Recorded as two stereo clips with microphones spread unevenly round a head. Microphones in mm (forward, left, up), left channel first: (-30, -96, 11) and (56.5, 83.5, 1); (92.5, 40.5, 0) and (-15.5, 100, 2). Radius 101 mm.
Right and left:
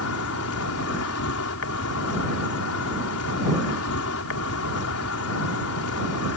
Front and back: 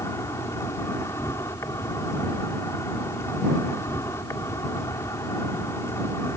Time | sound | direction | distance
0.0 | an insect | 105° right | ?